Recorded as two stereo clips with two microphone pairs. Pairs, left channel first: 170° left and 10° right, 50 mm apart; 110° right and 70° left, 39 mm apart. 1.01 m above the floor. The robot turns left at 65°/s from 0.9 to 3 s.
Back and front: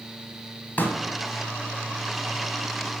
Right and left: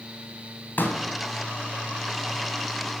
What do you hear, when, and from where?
0.8 s a pop: 140° right, 1.7 m; by 1.0 s 145° right, 1.7 m